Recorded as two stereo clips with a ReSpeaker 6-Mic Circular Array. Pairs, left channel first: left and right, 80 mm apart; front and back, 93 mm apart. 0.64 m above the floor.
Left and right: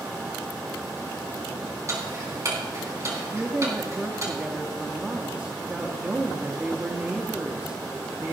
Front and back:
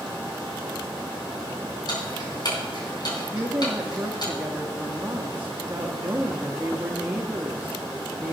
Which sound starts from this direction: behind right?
A woman speaking, at 3.3 s.